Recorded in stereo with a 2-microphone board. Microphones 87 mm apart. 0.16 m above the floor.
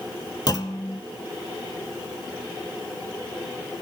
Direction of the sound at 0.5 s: 50° left (ahead or behind).